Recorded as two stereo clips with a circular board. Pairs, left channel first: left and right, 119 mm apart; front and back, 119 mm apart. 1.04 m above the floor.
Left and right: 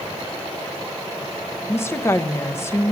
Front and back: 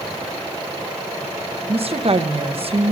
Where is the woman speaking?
155° left, 0.9 m.